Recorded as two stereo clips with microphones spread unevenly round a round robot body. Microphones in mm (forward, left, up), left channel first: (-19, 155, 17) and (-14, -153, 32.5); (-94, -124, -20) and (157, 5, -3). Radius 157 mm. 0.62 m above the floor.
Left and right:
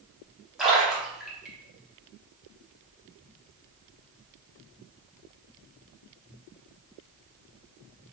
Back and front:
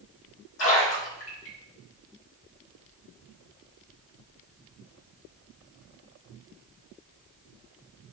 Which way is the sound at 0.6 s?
Straight behind.